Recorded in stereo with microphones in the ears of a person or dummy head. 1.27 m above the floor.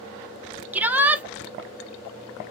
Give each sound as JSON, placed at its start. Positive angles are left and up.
{"t": 0.7, "sound": "a shout", "side_deg": -15, "distance_m": 0.6}